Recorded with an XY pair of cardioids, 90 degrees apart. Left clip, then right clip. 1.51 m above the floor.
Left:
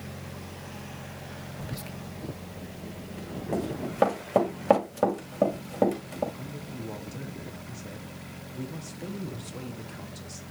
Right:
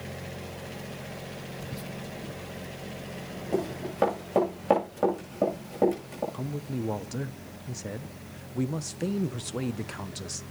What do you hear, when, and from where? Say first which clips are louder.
1.6 s whispering: right 1 dB; 40° left, 1.0 m
3.5 s running footsteps: right 1 dB; 25° left, 8 m
6.3 s a man speaking: right 5 dB; 65° right, 0.8 m